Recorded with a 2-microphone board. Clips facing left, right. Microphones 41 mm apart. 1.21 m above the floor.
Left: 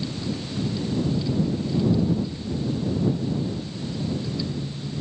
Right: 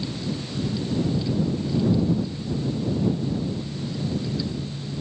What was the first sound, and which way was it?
Only background noise.